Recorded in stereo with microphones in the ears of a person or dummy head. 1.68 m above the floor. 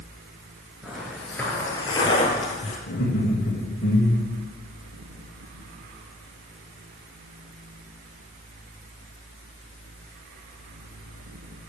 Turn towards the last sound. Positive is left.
turn(degrees=50)  # may be behind; listen again after turning